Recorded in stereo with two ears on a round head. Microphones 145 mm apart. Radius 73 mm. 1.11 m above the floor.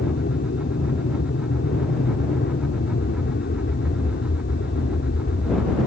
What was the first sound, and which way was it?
An aircraft, 65° left (ahead or behind).